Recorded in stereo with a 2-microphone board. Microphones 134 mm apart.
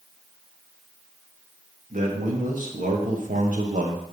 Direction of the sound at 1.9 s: 80° right.